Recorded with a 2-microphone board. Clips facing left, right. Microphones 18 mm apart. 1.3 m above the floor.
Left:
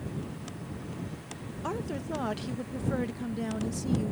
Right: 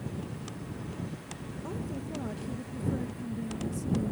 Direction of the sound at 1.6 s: 65° left (ahead or behind).